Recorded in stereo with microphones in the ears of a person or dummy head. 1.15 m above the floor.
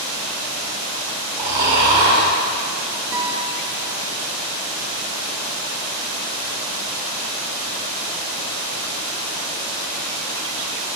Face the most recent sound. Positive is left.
turn(degrees=-15)  # may be behind; listen again after turning